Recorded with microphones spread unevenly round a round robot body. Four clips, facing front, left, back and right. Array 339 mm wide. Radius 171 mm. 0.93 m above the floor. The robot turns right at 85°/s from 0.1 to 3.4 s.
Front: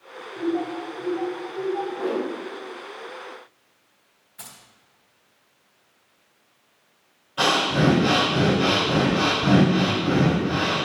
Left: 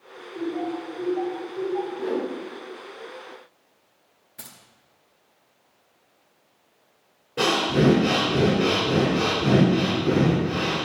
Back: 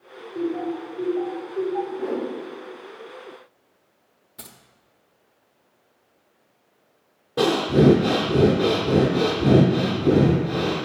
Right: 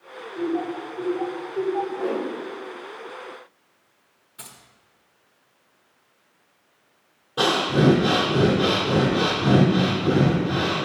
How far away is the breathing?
About 3 m.